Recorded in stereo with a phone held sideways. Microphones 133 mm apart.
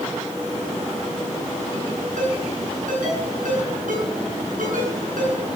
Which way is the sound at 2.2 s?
85° right.